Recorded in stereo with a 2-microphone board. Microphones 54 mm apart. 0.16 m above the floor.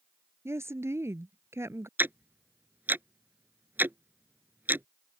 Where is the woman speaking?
55° right (ahead or behind).